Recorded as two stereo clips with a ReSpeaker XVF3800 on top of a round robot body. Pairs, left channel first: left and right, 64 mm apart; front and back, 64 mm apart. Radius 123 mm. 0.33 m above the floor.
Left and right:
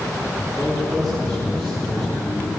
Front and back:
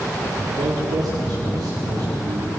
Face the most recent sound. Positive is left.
turn(degrees=170)